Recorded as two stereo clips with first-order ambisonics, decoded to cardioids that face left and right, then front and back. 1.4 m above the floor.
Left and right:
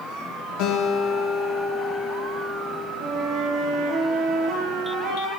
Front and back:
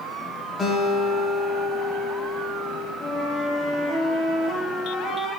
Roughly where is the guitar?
Left.